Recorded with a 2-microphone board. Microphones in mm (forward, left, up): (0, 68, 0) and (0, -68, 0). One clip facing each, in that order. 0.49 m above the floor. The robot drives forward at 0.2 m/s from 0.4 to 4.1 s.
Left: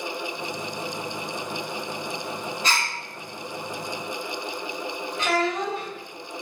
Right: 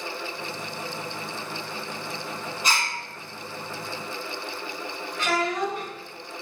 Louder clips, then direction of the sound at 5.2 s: Left 1 dB; 20° left (ahead or behind).